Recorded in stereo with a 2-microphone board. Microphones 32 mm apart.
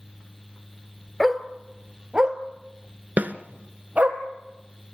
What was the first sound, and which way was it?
A dog barking, centre (ahead or behind).